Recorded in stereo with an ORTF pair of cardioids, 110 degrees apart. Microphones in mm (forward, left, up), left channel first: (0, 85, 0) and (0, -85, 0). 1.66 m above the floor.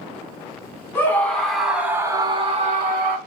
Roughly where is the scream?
Ahead.